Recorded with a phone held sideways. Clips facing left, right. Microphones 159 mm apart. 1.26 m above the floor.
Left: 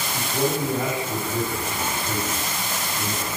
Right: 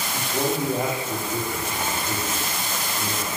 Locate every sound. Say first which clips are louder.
0.1 s a man speaking: left 1 dB; 15° right (ahead or behind), 2 m